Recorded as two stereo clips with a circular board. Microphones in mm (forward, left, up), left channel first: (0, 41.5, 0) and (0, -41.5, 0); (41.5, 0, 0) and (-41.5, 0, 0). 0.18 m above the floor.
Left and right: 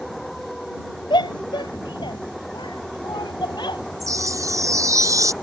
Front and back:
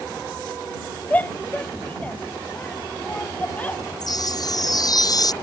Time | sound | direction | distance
1.1 | a shout | 70° left | ?
4.0 | a chime | 40° right | ?